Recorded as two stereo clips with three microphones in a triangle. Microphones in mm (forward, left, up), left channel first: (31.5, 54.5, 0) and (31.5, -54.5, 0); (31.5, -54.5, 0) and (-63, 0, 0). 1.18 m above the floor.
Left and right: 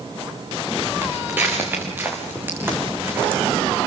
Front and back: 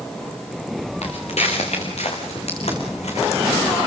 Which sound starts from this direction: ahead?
Footsteps, at 1.0 s.